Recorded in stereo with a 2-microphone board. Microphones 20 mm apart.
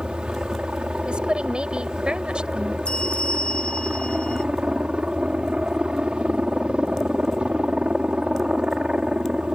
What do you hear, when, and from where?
0.0 s a helicopter: 60° right (ahead or behind)
1.1 s a woman speaking: 70° right (ahead or behind)
2.9 s a bell: 80° left